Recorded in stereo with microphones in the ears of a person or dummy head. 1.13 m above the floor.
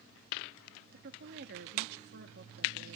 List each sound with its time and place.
0.9 s a woman speaking: 55° right (ahead or behind), 2 m